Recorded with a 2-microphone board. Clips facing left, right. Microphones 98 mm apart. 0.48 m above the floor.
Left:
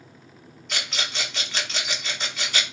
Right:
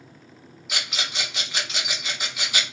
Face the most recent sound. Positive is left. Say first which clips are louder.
# even
turn(degrees=-10)  # may be behind; listen again after turning